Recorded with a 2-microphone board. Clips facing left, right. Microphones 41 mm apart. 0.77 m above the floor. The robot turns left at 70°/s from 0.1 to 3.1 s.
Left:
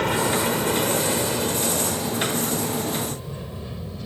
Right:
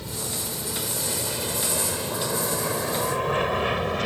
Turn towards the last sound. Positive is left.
turn(degrees=-70)  # may be behind; listen again after turning